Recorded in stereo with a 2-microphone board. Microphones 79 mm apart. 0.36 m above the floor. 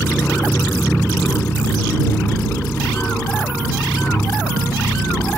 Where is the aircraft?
20° left (ahead or behind).